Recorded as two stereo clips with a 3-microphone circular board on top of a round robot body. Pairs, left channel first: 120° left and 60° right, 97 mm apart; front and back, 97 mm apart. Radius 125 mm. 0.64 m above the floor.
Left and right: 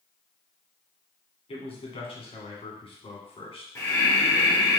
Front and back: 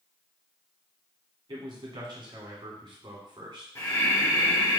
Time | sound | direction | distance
1.5 | a man speaking | 140° left | 1.9 m
3.8 | breathing | 55° left | 2 m